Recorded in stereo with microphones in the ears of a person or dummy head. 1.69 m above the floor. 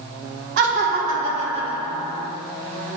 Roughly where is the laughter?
Right.